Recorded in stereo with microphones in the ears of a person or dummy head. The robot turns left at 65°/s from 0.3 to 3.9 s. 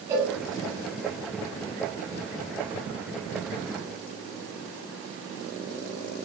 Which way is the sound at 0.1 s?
20° right (ahead or behind).